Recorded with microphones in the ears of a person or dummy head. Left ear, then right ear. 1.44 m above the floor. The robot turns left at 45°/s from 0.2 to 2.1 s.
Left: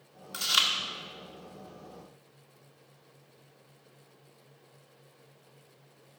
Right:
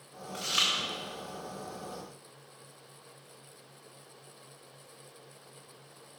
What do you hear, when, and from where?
0.3 s chewing: 65° left (ahead or behind), 1.8 m; by 0.7 s 55° left (ahead or behind), 1.8 m